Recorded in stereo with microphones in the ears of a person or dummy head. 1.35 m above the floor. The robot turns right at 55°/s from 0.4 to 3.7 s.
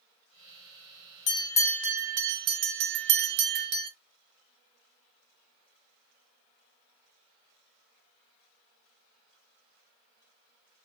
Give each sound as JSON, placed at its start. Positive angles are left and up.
{"t": 1.3, "sound": "a bell", "azimuth_deg": 145, "distance_m": 0.6}